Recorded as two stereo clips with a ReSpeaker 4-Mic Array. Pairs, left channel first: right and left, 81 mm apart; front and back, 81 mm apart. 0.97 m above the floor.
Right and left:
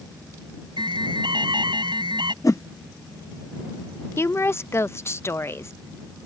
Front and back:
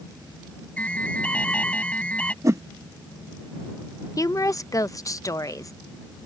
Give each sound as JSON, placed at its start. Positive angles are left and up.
{"t": 0.8, "sound": "an alarm", "azimuth_deg": 75}
{"t": 2.4, "sound": "a whoosh", "azimuth_deg": -135}
{"t": 4.2, "sound": "a woman speaking", "azimuth_deg": -40}